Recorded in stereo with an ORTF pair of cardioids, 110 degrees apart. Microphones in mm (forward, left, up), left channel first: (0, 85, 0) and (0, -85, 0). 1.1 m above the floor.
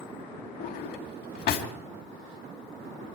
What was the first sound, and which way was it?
A drawer, 70° left.